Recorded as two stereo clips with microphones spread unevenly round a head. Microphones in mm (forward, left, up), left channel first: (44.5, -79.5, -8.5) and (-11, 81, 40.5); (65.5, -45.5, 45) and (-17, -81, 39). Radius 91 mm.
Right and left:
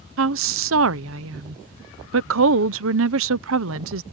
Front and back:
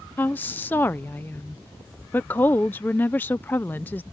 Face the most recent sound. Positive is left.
turn(degrees=100)